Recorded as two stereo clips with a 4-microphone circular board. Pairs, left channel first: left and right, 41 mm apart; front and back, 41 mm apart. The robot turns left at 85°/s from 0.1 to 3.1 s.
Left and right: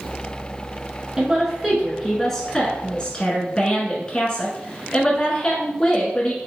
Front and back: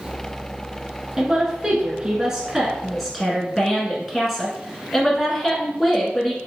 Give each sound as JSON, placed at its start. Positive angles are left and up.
{"t": 1.2, "sound": "a woman speaking", "azimuth_deg": -110, "distance_m": 1.1}